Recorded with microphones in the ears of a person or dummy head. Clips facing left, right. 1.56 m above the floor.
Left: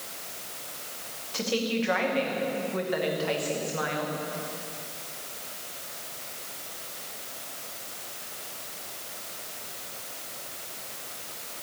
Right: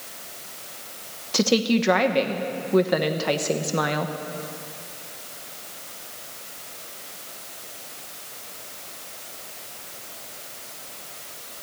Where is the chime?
I don't hear a chime.